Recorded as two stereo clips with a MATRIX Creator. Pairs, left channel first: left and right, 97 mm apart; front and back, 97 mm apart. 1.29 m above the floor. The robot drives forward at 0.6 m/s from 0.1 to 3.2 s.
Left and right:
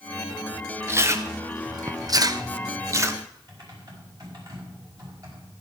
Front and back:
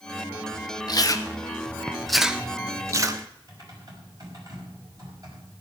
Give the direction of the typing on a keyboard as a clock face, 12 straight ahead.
5 o'clock.